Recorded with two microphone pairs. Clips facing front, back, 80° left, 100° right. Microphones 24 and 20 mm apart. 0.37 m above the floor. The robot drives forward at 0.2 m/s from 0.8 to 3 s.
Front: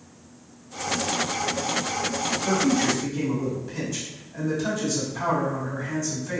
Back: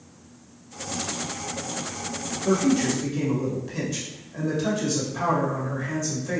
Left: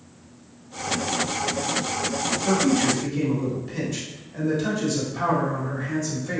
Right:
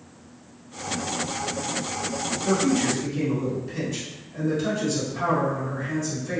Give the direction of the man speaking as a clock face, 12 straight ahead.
7 o'clock.